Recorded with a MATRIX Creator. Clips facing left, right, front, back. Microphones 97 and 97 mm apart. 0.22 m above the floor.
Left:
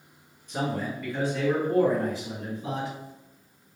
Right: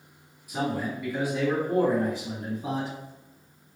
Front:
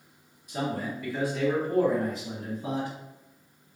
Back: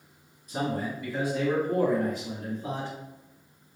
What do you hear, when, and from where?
0.5 s a man speaking: 160° right, 1.8 m; by 2.9 s 65° right, 1.9 m